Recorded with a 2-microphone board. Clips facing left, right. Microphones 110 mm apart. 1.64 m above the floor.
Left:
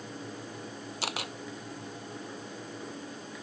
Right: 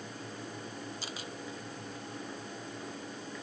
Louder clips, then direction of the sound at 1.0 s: Left 6 dB; 75° left (ahead or behind).